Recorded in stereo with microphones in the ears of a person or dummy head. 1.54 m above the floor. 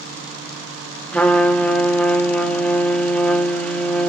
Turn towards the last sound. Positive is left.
turn(degrees=10)  # may be behind; listen again after turning